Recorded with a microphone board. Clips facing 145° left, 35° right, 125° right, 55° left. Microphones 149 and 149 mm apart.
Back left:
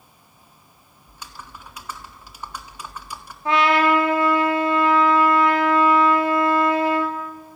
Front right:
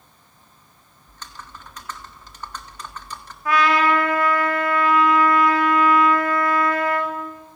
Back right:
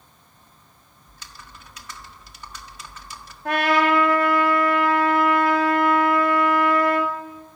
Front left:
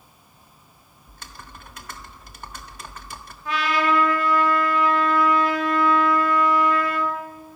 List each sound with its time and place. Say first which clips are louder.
1.1 s typing on a keyboard: even, front left 3 dB; 70° left, 1.6 m
3.5 s a trumpet: back left 1 dB, back right 3 dB; 150° right, 4 m